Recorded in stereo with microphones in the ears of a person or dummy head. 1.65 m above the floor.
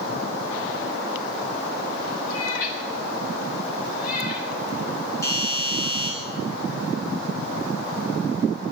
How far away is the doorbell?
About 3 m.